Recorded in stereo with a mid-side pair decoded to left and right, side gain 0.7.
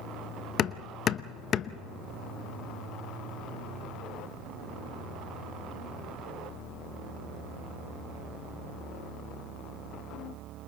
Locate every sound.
0.6 s hammering: 40° left, 0.7 m